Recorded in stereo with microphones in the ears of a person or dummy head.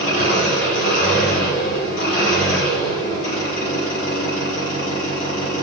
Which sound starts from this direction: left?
An engine running, at 0.0 s.